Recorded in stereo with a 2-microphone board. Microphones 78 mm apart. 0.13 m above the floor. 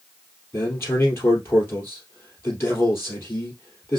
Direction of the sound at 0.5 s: 30° left (ahead or behind).